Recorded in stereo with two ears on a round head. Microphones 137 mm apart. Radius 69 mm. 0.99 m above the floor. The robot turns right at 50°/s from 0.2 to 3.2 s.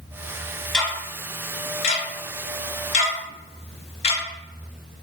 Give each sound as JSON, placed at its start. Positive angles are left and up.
{"t": 0.7, "sound": "ticking", "side_deg": 5, "distance_m": 0.7}